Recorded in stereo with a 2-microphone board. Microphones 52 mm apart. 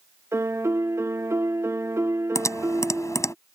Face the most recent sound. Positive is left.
turn(degrees=75)  # may be behind; listen again after turning